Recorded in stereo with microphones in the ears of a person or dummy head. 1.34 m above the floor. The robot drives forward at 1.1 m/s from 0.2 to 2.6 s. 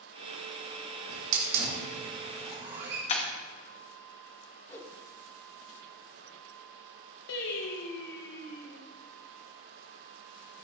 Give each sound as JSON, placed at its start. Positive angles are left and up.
{"t": 1.1, "sound": "a hiss", "side_deg": -65, "distance_m": 1.3}
{"t": 3.1, "sound": "breaking glass", "side_deg": 35, "distance_m": 1.1}
{"t": 4.7, "sound": "a whoosh", "side_deg": 15, "distance_m": 0.7}
{"t": 7.3, "sound": "singing", "side_deg": 65, "distance_m": 1.1}